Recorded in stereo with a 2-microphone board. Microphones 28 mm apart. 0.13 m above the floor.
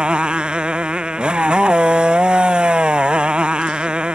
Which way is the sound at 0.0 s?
35° right (ahead or behind).